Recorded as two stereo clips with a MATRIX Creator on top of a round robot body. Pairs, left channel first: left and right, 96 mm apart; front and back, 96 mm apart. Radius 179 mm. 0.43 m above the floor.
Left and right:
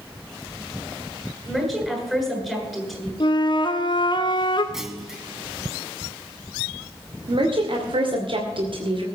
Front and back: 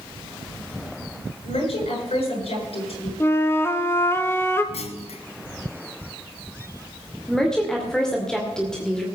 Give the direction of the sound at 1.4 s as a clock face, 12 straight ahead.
12 o'clock.